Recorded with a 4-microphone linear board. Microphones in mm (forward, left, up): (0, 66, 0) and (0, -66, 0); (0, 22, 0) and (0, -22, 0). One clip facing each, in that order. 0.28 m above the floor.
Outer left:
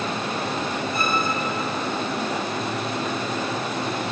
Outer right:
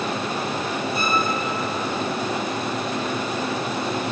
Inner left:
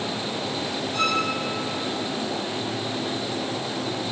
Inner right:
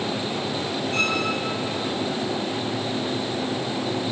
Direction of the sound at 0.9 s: 80° right.